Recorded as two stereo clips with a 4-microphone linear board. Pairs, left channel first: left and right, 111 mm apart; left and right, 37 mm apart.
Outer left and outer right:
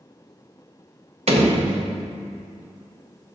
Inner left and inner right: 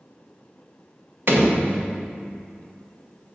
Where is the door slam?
60° right (ahead or behind), 0.8 m.